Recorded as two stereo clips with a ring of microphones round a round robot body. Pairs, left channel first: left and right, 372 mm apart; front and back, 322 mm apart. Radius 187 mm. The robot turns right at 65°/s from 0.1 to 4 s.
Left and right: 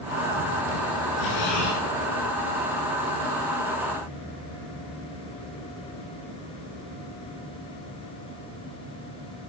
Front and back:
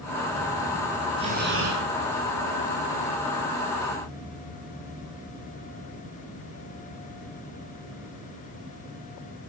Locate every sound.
1.2 s breathing: 105° left, 6.5 m; by 1.8 s 150° left, 6.5 m